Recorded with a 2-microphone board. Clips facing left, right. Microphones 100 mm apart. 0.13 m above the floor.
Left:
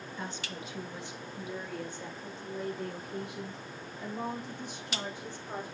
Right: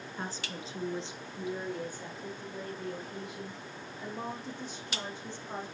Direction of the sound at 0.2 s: 40° right (ahead or behind).